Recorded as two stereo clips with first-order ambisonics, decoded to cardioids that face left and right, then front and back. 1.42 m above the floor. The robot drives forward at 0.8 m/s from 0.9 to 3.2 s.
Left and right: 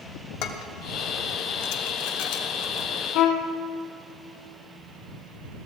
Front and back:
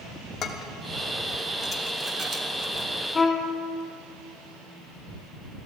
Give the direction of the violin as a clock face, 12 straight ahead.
10 o'clock.